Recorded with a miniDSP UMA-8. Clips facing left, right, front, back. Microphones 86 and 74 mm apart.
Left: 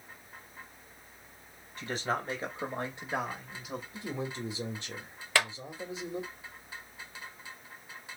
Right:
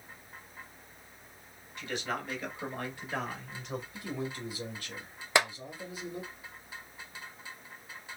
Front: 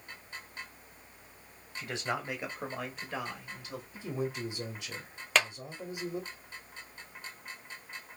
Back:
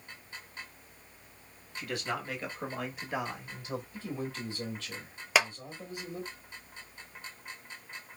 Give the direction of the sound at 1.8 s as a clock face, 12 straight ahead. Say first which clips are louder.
Left 3 dB, even; 10 o'clock.